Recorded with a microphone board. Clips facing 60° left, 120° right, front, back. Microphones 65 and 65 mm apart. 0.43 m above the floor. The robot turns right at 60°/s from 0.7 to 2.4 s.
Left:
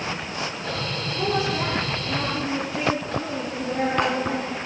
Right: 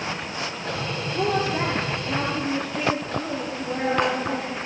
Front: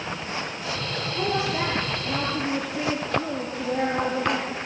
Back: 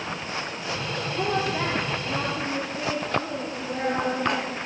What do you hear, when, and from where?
1.1 s a woman speaking: 90° right, 9 m; by 4.6 s 15° right, 9 m